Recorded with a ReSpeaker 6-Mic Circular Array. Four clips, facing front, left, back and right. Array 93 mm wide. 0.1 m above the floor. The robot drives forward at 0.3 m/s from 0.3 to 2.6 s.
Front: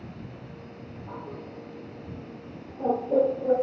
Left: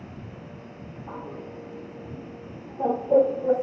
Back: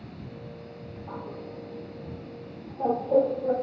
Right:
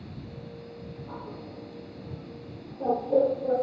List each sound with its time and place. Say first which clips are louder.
1.1 s a bird: left 6 dB, back 1 dB; 100° left, 6 m; by 3.5 s 105° left, 6.5 m